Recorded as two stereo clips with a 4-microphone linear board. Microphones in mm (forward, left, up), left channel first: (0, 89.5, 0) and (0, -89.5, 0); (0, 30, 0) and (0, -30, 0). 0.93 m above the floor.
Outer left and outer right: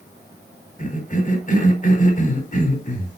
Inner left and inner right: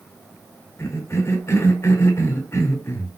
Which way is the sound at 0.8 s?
50° left (ahead or behind).